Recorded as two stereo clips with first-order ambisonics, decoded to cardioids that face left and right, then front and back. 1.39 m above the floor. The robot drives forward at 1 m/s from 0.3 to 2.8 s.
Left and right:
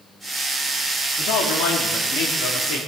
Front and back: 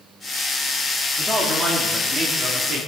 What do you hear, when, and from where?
1.2 s a man speaking: 95° left, 3 m; by 2.8 s 120° left, 3.5 m